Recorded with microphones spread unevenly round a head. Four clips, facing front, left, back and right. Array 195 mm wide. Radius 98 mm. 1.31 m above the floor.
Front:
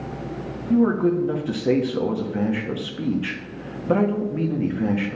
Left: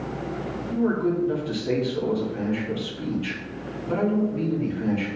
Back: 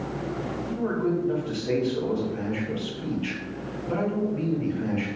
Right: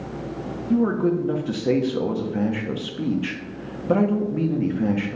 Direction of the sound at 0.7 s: 40° right.